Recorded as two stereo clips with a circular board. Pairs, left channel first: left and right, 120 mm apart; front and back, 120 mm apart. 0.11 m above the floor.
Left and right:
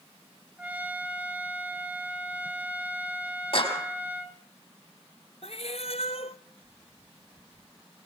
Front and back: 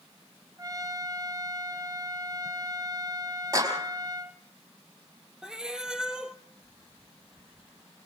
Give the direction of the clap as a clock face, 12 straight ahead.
8 o'clock.